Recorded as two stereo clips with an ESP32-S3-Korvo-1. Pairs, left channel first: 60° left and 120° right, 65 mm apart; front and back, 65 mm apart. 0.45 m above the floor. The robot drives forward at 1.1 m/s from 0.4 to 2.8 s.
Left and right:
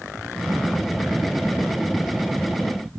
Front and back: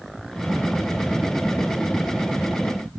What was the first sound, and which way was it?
Only background noise.